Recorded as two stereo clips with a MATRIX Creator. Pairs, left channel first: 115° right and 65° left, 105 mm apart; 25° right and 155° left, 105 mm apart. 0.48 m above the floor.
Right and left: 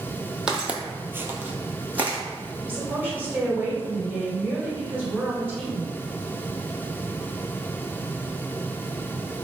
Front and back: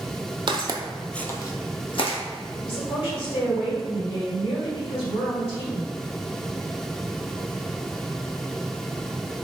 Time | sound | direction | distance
0.5 | footsteps | 150° left | 0.7 m
2.6 | a woman speaking | 5° right | 1.6 m